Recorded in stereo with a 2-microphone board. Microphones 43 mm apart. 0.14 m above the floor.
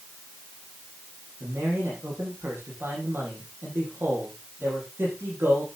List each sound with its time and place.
1.4 s a man speaking: 70° right (ahead or behind), 7.5 m